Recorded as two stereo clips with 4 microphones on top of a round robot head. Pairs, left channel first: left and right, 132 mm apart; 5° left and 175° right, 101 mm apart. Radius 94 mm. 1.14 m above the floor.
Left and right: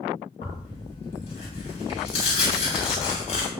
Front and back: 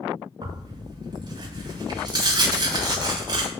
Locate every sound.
0.4 s tearing paper: 145° left, 7.5 m